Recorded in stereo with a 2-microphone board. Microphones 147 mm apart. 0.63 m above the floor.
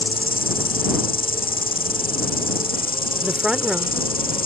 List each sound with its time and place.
0.0 s an insect: 75° left (ahead or behind)
3.2 s a woman speaking: 5° right (ahead or behind)